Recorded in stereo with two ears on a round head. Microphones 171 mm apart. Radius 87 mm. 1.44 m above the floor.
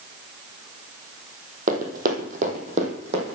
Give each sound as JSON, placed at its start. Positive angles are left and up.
{"t": 1.7, "sound": "running footsteps", "side_deg": -45, "distance_m": 2.0}